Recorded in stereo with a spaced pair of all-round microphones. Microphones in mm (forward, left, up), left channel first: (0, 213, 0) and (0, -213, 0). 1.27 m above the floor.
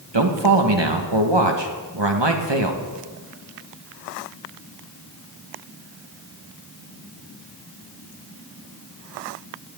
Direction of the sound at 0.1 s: 75° right (ahead or behind).